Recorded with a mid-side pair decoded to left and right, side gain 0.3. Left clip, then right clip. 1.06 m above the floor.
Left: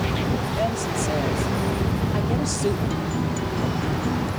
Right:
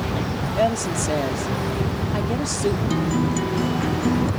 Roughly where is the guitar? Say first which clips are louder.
Right 4 dB; ahead right.